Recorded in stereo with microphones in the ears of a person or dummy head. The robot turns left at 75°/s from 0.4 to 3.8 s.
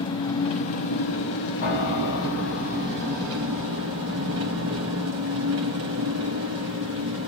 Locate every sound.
0.0 s an engine running: 160° left, 1.5 m; by 7.3 s 95° right, 1.5 m
1.6 s a piano: 135° left, 1.8 m; by 7.2 s 30° right, 1.8 m